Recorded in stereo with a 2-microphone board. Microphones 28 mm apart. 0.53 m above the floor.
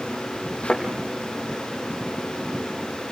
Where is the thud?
45° left (ahead or behind), 5 m.